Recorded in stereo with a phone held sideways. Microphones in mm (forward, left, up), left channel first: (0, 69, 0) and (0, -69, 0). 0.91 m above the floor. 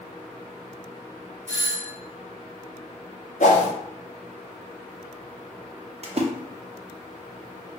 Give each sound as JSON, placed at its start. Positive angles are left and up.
{"t": 1.5, "sound": "a doorbell", "side_deg": -55, "distance_m": 1.4}
{"t": 3.4, "sound": "a whoosh", "side_deg": 60, "distance_m": 0.7}
{"t": 6.0, "sound": "a splash", "side_deg": -50, "distance_m": 0.5}